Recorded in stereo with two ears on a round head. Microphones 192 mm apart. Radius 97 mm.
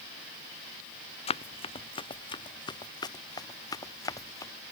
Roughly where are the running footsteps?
Left.